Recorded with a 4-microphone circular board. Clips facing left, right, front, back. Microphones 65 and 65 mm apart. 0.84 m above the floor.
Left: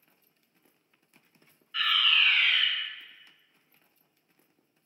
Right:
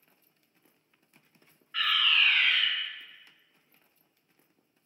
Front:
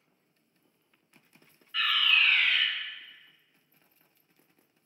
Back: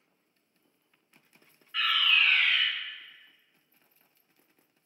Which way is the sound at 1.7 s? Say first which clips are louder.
Left 1 dB, even; 115° right.